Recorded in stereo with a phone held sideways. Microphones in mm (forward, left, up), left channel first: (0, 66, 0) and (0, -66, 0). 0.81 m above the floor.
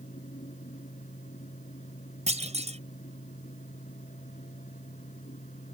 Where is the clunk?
60° right (ahead or behind).